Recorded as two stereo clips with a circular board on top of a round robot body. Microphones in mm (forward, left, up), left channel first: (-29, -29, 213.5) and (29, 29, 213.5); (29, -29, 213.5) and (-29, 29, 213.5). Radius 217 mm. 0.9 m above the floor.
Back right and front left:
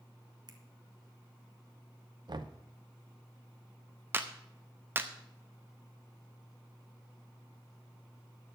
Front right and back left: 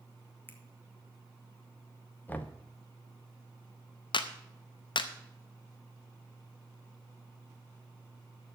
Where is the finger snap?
20° left, 1.5 m.